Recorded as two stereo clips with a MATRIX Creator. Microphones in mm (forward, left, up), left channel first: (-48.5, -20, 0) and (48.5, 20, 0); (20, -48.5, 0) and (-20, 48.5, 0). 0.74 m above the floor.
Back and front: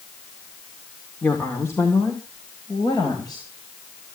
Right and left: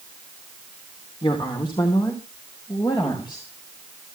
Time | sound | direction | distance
1.2 | a woman speaking | 90° right | 2.5 m